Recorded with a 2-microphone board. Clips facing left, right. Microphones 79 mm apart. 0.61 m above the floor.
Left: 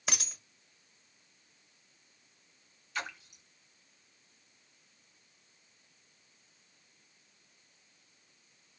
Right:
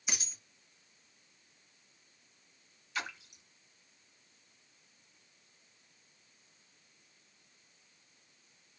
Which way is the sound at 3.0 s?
Centre (ahead or behind).